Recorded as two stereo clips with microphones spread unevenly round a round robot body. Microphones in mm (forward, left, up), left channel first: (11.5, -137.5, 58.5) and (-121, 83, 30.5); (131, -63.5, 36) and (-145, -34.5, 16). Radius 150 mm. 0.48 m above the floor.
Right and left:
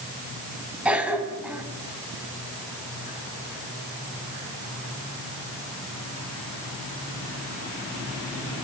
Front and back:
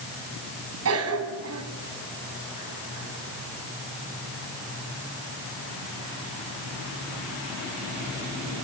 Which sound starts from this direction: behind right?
A cough, at 0.8 s.